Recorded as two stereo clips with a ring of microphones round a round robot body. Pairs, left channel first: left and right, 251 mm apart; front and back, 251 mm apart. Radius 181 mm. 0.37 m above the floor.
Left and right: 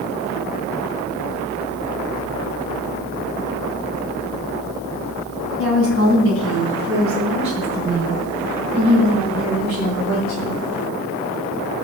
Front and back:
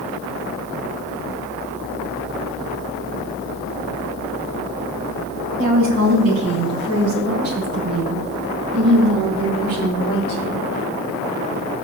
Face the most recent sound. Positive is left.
turn(degrees=-140)